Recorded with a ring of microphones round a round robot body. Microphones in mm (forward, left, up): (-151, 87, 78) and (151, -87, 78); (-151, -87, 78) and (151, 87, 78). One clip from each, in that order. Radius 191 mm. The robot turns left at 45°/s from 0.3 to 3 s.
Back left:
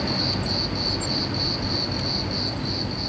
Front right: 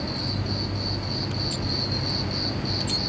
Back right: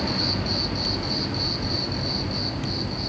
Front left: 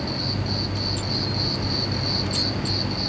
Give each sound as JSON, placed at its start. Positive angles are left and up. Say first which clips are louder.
{"t": 0.0, "sound": "an insect", "louder": "back left 5 dB, back right 3 dB", "azimuth_deg": 150, "distance_m": 1.4}